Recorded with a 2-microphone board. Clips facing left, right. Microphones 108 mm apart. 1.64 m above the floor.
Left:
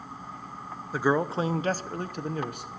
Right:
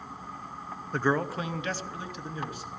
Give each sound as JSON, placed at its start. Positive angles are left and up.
{"t": 0.9, "sound": "a man speaking", "side_deg": 0, "distance_m": 0.5}